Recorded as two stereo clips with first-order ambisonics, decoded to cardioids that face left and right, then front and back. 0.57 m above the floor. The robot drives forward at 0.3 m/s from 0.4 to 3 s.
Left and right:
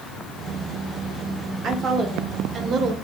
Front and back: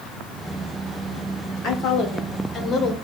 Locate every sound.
1.6 s a woman speaking: 35° right, 1.1 m; by 2.9 s 55° right, 0.9 m